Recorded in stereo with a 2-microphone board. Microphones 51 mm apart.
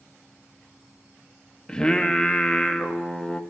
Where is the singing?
15° left (ahead or behind), 0.8 m.